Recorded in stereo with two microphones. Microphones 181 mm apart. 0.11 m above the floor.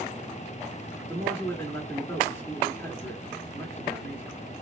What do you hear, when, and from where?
1.1 s a man speaking: 15° left (ahead or behind), 1.7 m